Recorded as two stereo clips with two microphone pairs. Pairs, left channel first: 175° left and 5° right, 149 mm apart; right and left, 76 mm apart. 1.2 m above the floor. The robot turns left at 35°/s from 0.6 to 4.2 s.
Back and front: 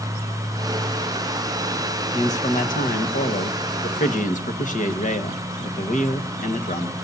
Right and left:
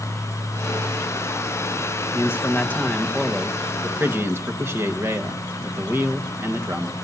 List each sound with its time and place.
2.1 s a man speaking: 140° right, 1.4 m; by 7.0 s 145° left, 1.4 m